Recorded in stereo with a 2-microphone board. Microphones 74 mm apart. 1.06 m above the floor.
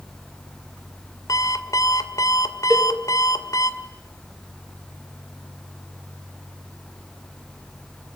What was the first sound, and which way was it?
An alarm clock, 55° left (ahead or behind).